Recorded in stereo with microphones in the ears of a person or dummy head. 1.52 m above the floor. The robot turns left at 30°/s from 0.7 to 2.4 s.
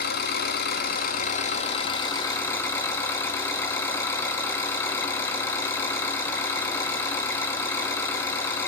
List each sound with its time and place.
0.0 s an engine running: 70° left, 1.7 m; by 8.7 s 15° left, 1.7 m